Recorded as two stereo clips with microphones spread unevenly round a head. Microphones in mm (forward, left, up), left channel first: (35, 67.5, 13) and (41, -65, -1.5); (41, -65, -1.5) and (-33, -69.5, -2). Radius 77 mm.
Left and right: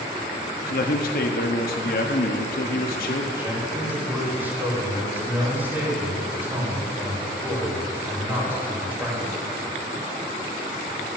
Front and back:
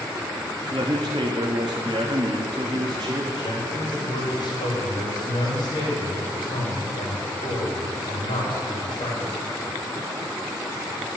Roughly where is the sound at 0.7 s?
Behind left.